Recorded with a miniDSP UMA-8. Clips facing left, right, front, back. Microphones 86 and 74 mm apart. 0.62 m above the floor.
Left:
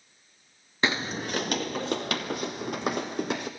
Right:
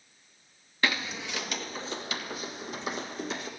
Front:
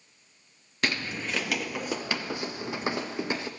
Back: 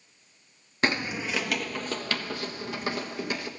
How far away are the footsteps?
About 0.7 m.